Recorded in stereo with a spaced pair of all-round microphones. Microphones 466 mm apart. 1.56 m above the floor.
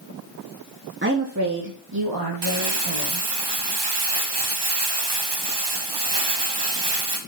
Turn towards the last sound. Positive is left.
turn(degrees=-60)  # may be behind; listen again after turning